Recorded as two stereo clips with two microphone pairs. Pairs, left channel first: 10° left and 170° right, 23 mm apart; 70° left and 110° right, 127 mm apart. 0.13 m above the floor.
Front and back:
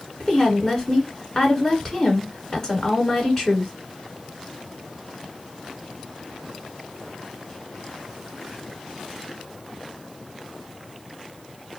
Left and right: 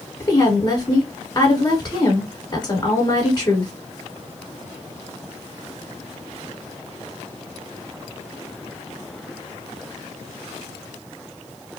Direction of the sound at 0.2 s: 60° left.